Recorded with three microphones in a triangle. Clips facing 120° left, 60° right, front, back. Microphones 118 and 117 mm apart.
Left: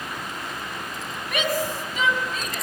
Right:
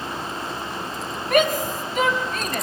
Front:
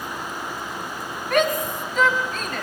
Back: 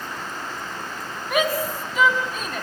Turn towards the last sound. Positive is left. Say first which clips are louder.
# right 6 dB, front 2 dB
turn(degrees=-100)